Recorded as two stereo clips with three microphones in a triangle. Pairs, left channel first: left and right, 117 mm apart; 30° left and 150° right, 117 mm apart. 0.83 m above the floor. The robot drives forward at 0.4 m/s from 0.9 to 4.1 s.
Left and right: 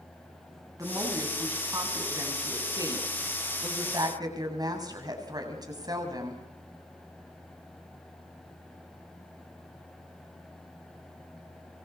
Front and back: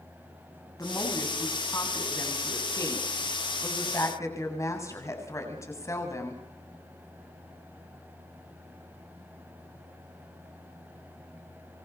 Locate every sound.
0.8 s a woman speaking: 30° right, 8.5 m; by 6.4 s 35° right, 7.5 m